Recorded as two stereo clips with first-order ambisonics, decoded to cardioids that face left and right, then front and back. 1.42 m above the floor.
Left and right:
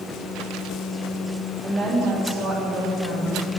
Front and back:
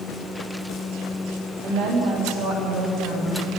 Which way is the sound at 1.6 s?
170° right.